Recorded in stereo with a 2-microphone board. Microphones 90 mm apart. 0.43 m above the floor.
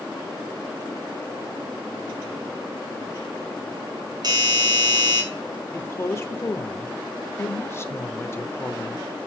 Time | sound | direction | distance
4.2 | a doorbell | 50° right (ahead or behind) | 3 m
5.7 | a woman speaking | 30° left (ahead or behind) | 1.0 m